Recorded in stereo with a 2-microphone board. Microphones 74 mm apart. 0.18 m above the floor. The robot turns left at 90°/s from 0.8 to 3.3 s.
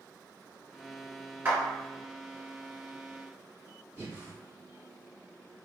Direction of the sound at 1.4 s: 25° right (ahead or behind).